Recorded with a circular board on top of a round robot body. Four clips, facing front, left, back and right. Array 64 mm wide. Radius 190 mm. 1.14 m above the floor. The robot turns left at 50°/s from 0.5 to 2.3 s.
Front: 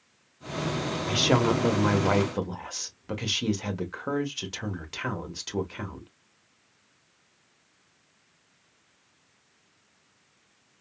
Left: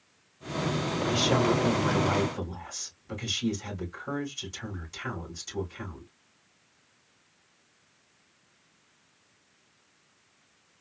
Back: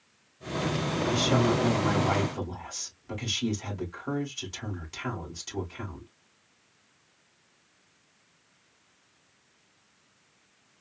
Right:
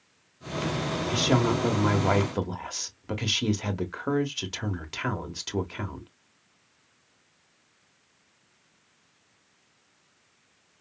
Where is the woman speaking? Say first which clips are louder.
Right 1 dB, front 2 dB; straight ahead, 1.3 m; by 6.1 s 60° right, 1.3 m.